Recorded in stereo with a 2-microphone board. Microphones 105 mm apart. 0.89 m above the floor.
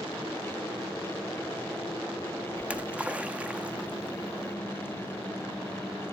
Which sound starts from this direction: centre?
A splash, at 2.6 s.